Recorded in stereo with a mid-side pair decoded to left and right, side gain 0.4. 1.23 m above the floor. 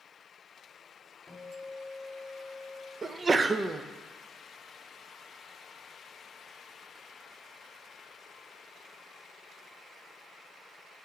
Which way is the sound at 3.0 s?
35° right.